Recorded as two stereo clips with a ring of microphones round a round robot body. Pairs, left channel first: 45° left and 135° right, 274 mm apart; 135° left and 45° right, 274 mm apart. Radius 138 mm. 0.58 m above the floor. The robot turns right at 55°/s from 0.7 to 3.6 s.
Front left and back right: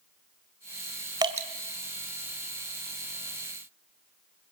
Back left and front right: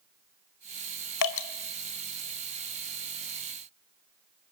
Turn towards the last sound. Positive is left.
turn(degrees=-80)